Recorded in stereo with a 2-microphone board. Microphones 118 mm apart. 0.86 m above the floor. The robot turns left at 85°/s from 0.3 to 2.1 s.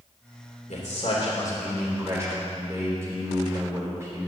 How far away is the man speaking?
About 3 m.